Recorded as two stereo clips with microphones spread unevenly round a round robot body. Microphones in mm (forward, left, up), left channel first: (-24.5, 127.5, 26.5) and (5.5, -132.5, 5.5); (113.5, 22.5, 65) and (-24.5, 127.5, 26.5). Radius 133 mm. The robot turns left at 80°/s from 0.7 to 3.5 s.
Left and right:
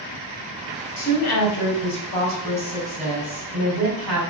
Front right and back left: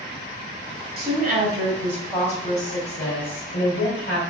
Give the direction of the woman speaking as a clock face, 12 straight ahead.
7 o'clock.